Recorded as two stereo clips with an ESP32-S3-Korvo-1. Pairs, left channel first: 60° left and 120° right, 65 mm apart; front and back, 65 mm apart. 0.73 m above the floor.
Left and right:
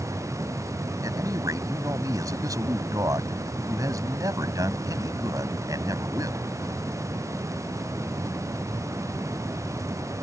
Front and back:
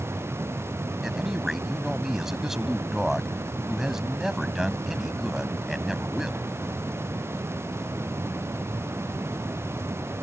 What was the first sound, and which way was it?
A man speaking, 95° right.